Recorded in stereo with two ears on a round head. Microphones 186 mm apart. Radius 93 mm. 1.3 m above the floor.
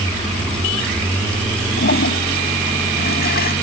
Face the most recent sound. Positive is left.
turn(degrees=45)  # may be behind; listen again after turning